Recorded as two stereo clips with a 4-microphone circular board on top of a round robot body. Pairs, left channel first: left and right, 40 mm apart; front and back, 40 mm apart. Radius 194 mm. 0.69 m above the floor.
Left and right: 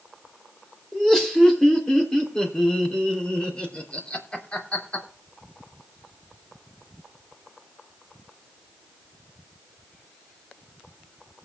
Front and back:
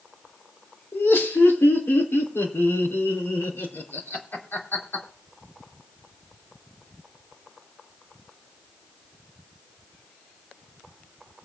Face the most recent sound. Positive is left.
turn(degrees=35)